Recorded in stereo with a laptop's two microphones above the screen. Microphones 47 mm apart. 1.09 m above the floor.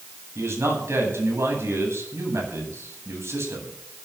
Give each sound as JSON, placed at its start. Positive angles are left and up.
{"t": 0.3, "sound": "a man speaking", "side_deg": -65, "distance_m": 10.0}